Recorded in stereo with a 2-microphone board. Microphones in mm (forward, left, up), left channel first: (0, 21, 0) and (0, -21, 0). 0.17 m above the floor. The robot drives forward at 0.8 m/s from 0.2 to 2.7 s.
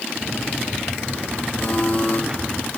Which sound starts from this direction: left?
A buzzer, at 1.6 s.